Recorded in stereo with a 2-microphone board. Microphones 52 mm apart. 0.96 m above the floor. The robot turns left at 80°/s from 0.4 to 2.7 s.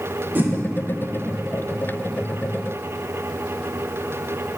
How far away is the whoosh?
About 0.7 m.